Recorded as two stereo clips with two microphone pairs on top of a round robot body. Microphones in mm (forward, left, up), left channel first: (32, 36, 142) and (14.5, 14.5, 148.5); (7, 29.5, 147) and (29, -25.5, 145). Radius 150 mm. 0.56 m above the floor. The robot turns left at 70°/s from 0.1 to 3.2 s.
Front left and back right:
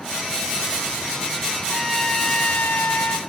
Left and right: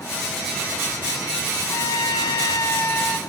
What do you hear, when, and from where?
1.7 s a trumpet: 145° left, 0.5 m; by 3.2 s 40° left, 0.5 m